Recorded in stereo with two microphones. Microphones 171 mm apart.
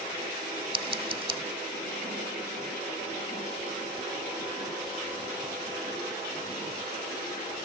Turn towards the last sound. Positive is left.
turn(degrees=-30)  # may be behind; listen again after turning